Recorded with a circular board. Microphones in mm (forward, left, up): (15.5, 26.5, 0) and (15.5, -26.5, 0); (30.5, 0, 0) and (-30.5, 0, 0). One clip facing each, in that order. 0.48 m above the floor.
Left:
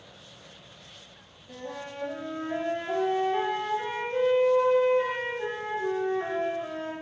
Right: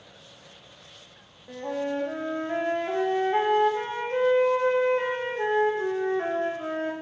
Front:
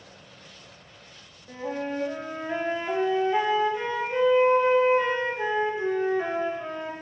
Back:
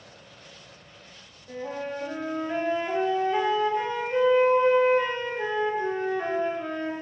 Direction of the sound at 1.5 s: 85° right.